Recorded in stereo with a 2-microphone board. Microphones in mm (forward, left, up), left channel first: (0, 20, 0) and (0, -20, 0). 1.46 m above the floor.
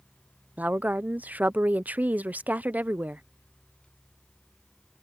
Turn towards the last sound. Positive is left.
turn(degrees=-40)  # may be behind; listen again after turning